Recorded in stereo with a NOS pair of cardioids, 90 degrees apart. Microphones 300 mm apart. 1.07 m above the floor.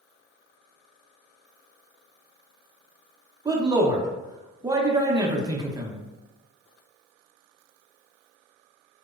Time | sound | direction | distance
3.5 | a man speaking | 15° right | 0.6 m